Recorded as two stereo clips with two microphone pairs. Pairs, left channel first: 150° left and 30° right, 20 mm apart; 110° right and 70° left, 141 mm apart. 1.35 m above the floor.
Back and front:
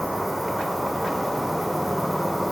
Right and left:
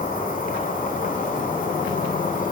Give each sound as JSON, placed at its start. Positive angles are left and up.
{"t": 0.0, "sound": "an insect", "azimuth_deg": -110, "distance_m": 1.8}